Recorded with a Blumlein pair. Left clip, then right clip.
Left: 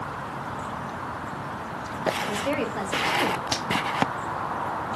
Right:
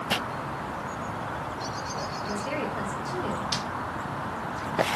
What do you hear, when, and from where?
2.2 s a woman speaking: 60° left, 1.0 m
3.5 s breaking glass: 55° left, 1.2 m